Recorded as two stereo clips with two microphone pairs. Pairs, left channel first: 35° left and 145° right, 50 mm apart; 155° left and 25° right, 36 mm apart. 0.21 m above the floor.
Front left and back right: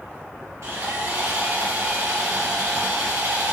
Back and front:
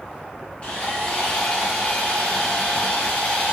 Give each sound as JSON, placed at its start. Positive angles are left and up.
{"t": 0.6, "sound": "sawing", "azimuth_deg": -150, "distance_m": 3.5}